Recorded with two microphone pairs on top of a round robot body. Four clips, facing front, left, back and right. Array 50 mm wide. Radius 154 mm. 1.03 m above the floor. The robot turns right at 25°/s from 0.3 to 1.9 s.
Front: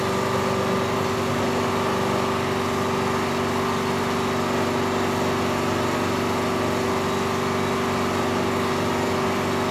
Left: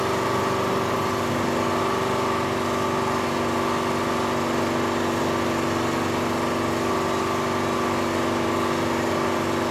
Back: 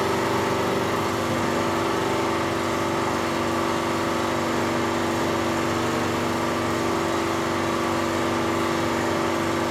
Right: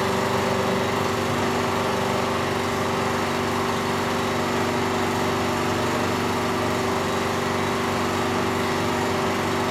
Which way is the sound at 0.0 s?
100° right.